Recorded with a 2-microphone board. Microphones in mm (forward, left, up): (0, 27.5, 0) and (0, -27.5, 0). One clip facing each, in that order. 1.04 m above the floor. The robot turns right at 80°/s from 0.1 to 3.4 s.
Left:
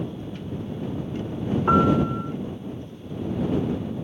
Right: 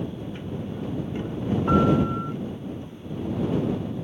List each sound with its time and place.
1.7 s a piano: 150° left; by 2.3 s 155° right